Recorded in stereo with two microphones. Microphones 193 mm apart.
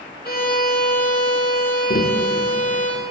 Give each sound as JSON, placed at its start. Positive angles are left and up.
{"t": 0.2, "sound": "a violin", "side_deg": 55, "distance_m": 1.7}
{"t": 1.9, "sound": "tapping", "side_deg": 50, "distance_m": 0.6}